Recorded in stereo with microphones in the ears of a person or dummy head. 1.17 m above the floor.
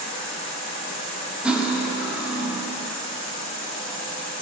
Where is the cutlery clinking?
5° right (ahead or behind), 1.6 m.